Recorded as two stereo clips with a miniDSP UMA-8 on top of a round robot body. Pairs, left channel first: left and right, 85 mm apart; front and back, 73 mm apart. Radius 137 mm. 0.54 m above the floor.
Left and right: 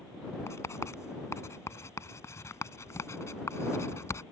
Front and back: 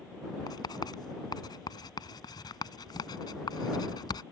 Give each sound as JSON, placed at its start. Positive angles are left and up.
{"t": 0.5, "sound": "writing", "azimuth_deg": 30}